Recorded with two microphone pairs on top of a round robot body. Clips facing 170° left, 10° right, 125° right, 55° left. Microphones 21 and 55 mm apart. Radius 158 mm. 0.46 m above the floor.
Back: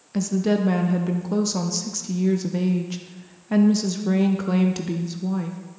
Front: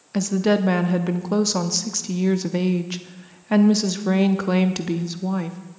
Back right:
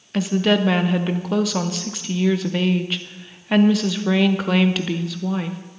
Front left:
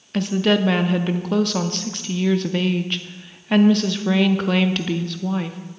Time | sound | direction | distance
0.1 | a woman speaking | 40° right | 0.8 m